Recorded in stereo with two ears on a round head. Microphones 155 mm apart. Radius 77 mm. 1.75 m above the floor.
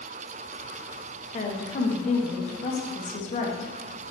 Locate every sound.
1.3 s a woman speaking: 40° left (ahead or behind), 0.9 m